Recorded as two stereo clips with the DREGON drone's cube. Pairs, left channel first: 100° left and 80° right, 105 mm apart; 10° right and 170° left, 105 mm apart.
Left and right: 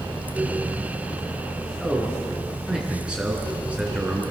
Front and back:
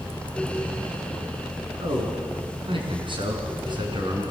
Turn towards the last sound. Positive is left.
turn(degrees=-155)